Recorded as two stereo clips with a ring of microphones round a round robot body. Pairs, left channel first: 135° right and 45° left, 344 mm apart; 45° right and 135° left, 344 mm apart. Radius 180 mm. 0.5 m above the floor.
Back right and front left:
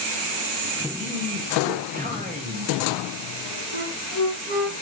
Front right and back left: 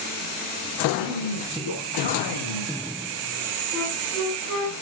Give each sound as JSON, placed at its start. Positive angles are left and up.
{"t": 1.0, "sound": "a man speaking", "azimuth_deg": -20, "distance_m": 4.0}
{"t": 3.7, "sound": "a flute", "azimuth_deg": 40, "distance_m": 8.0}